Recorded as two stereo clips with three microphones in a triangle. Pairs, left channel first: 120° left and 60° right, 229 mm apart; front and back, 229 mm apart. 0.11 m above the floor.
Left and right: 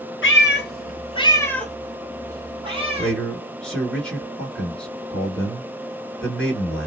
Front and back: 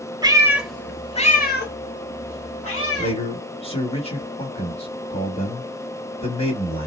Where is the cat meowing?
110° left, 0.9 m; by 3.1 s straight ahead, 1.5 m.